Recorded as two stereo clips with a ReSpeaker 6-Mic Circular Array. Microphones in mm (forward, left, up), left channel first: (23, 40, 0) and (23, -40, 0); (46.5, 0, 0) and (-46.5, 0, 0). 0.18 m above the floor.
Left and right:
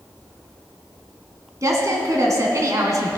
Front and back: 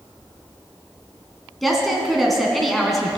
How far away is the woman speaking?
About 1.7 m.